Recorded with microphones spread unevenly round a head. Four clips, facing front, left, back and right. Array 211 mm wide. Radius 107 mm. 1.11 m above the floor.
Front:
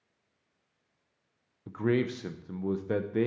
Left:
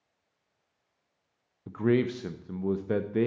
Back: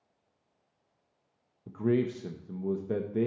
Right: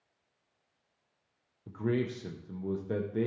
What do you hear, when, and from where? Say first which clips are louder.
1.7 s a man speaking: left 6 dB, even; 20° left, 0.5 m